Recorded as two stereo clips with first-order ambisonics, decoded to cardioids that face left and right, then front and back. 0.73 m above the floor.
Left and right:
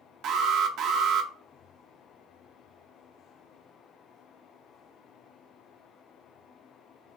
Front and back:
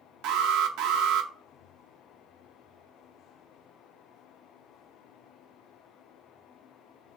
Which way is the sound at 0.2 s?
140° right.